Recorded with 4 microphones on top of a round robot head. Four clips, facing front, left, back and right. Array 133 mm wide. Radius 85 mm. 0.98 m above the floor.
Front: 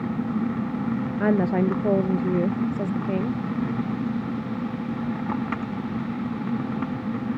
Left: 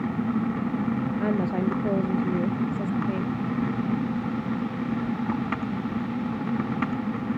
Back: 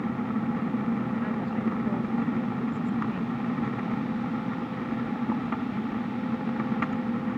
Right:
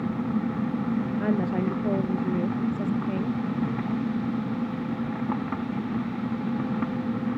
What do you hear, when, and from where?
1.2 s a woman speaking: 10° left; by 3.4 s 5° left